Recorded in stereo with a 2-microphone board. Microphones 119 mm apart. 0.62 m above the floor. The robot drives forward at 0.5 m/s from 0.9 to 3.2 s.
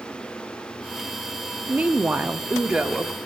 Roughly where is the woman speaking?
Centre.